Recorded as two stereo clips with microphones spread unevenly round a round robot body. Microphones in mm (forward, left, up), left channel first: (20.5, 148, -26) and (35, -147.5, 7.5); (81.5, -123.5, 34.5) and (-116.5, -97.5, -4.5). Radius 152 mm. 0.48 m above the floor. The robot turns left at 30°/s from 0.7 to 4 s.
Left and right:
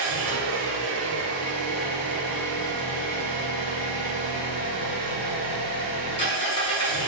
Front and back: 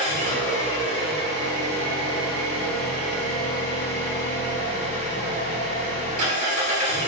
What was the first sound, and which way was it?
An engine running, 130° right.